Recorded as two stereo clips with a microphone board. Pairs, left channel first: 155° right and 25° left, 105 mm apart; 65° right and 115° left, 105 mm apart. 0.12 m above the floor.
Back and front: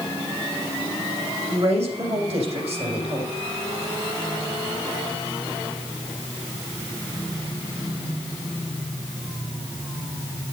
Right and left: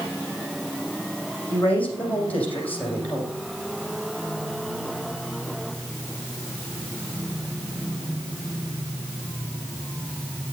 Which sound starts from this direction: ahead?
A woman speaking, at 1.5 s.